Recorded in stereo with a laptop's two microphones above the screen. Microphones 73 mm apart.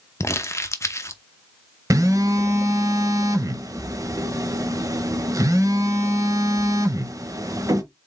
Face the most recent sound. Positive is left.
turn(degrees=-50)  # may be behind; listen again after turning